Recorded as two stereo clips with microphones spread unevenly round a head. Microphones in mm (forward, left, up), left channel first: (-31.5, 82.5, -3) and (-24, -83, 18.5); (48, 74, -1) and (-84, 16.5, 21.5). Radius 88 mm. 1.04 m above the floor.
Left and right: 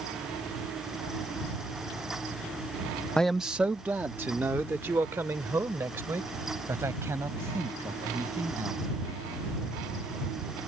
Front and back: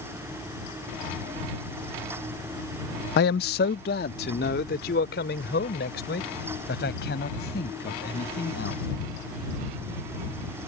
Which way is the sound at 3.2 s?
10° left.